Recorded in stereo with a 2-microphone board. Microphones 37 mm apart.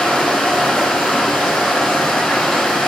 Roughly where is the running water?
Centre.